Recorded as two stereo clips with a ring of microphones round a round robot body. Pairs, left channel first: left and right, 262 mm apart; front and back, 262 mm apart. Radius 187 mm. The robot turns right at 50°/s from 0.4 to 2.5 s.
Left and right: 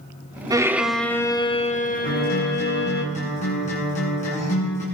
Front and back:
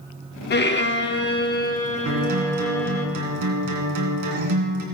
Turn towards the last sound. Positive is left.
turn(degrees=160)